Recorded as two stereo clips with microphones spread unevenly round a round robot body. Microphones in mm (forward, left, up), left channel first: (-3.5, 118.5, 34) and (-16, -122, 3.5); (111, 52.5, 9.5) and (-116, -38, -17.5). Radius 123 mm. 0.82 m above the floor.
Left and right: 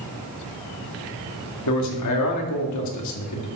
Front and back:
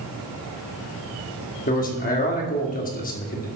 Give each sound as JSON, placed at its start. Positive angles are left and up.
{"t": 1.7, "sound": "a man speaking", "azimuth_deg": 80, "distance_m": 2.0}